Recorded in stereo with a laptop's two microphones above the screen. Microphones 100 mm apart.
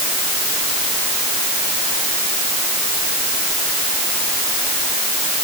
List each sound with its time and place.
Only background noise.